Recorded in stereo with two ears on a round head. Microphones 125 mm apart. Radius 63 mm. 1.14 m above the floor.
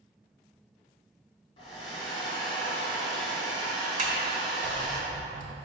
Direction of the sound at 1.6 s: 35° left (ahead or behind).